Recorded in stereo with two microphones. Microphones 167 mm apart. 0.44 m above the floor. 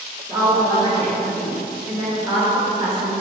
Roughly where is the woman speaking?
Right.